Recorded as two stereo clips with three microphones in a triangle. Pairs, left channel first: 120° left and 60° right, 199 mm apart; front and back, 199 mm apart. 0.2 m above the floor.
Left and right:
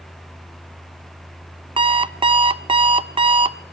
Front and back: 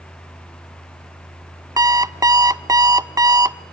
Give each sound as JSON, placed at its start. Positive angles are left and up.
{"t": 1.8, "sound": "an alarm clock", "azimuth_deg": -110, "distance_m": 0.5}